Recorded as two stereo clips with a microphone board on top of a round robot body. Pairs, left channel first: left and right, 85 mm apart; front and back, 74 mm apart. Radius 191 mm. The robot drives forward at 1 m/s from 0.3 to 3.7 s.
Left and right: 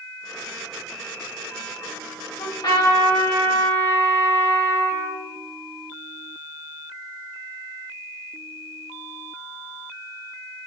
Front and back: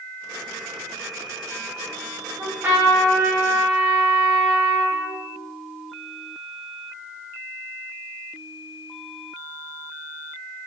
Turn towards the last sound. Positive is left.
turn(degrees=130)